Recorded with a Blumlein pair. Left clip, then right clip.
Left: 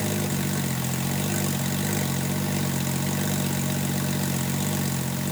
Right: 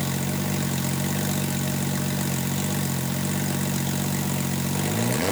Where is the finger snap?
No finger snap in this recording.